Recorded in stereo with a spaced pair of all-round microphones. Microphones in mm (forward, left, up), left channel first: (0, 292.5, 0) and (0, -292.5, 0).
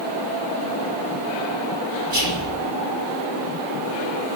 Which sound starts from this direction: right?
Whispering, at 2.1 s.